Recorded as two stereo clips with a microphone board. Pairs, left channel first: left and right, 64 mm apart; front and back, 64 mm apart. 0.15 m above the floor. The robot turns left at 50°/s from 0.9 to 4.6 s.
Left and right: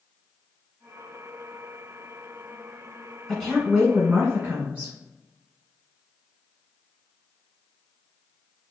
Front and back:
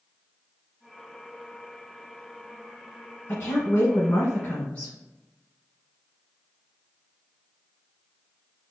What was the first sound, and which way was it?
A woman speaking, 10° left.